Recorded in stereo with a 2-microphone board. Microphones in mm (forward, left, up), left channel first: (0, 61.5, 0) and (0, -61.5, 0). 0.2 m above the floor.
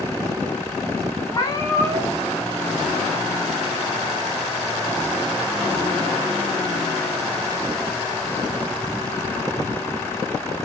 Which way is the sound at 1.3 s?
35° left (ahead or behind).